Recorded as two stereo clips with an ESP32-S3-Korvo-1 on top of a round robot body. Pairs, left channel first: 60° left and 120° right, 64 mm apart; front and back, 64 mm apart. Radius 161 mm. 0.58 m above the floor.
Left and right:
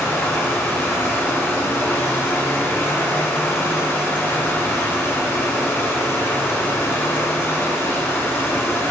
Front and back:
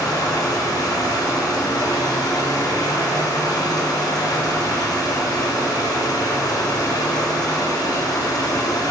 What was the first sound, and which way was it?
Running water, 5° left.